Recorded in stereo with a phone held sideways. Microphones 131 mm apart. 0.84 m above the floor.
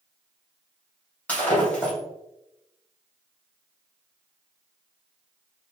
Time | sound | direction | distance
1.3 | breaking glass | 10° left (ahead or behind) | 3 m